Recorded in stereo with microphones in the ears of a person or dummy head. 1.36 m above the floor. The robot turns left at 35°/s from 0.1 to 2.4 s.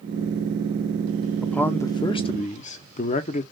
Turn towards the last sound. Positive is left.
turn(degrees=145)